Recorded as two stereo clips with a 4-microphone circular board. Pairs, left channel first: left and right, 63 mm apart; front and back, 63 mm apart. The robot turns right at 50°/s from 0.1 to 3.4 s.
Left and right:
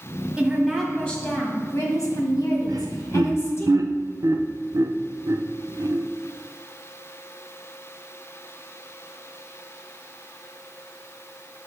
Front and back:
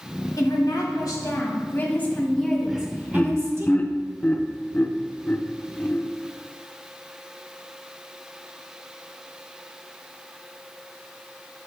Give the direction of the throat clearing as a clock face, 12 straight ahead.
No throat clearing in this recording.